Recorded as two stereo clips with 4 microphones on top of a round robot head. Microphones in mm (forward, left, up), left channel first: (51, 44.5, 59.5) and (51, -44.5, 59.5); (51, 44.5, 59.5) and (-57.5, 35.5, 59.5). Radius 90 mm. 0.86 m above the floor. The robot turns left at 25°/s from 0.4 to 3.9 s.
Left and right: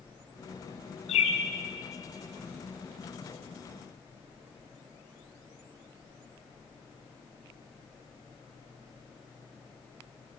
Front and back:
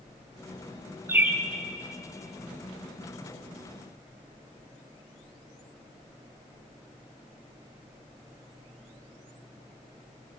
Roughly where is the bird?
Behind left.